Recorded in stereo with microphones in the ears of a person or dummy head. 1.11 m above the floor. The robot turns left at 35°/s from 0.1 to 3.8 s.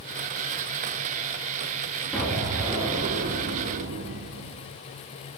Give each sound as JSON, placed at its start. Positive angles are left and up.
{"t": 2.1, "sound": "an explosion", "azimuth_deg": 0, "distance_m": 5.5}